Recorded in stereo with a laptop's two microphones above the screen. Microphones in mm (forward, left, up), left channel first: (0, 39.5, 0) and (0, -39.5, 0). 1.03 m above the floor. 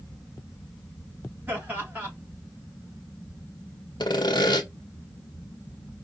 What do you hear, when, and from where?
1.5 s laughter: 25° right (ahead or behind), 3 m
4.0 s sawing: 65° left (ahead or behind), 1.0 m